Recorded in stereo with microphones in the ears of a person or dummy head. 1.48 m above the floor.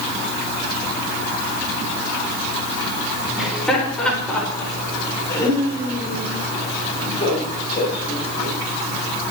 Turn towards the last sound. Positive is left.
turn(degrees=35)  # may be behind; listen again after turning